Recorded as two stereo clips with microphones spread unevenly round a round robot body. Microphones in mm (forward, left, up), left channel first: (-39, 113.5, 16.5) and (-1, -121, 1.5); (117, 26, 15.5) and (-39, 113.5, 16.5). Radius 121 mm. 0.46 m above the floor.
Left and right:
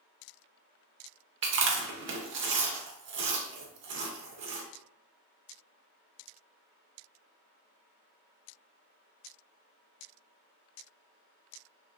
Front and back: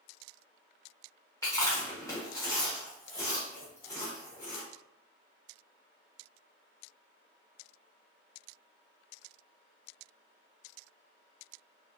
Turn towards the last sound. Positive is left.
turn(degrees=-100)